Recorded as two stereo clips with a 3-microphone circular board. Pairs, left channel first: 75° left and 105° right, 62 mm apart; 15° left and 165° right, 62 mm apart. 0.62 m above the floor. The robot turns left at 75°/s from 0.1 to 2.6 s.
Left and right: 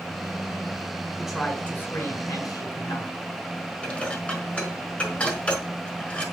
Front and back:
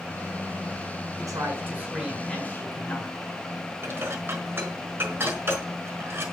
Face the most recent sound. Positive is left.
turn(degrees=145)